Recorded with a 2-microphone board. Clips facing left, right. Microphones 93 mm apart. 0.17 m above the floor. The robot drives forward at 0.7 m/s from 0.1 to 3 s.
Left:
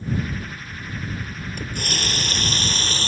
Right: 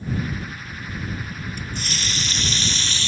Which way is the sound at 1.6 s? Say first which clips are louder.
Left 2 dB; 55° left (ahead or behind).